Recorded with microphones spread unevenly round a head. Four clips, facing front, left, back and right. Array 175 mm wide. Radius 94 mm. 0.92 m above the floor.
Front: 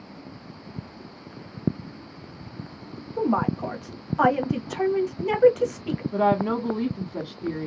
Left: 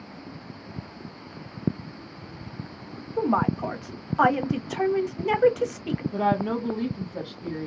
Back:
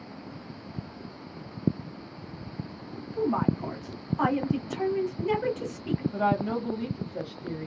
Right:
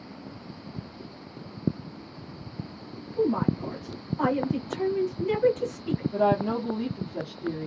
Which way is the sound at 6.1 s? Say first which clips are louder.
Right 1 dB, front 6 dB; straight ahead.